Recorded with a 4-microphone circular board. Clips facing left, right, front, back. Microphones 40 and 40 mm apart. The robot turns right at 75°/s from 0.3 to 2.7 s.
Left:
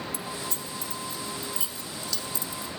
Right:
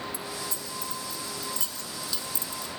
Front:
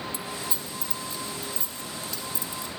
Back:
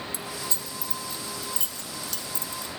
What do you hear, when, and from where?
0.1 s keys jangling: 60° left, 1.3 m; by 2.8 s 120° right, 1.3 m